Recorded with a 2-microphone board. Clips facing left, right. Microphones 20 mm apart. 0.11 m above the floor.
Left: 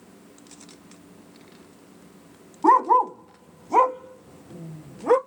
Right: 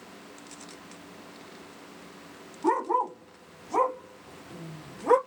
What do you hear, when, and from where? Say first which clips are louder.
2.6 s a dog barking: left 9 dB; 75° left (ahead or behind), 1.8 m; by 5.2 s 10° left (ahead or behind), 1.0 m